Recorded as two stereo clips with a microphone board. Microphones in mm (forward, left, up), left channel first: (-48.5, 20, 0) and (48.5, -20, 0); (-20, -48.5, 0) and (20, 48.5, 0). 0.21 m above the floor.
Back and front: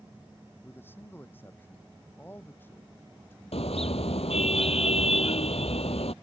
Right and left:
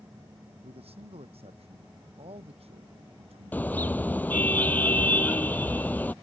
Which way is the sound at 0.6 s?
85° left.